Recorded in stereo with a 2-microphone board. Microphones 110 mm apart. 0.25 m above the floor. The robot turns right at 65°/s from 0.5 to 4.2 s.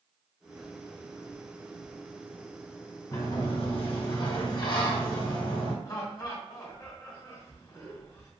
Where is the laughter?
40° left (ahead or behind), 1.7 m.